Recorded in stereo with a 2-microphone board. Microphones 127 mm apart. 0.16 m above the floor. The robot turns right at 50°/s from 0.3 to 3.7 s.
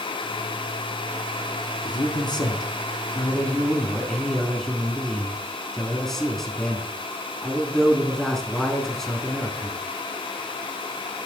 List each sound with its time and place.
1.9 s a man speaking: 80° left, 1.3 m; by 9.8 s 175° left, 1.3 m